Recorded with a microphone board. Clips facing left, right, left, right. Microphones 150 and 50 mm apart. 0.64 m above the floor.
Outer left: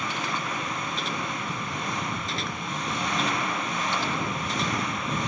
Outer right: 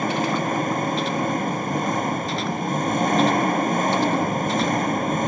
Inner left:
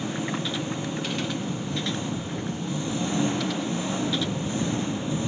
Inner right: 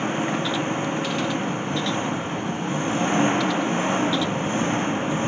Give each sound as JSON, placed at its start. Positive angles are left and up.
{"t": 0.0, "sound": "an engine running", "side_deg": -45}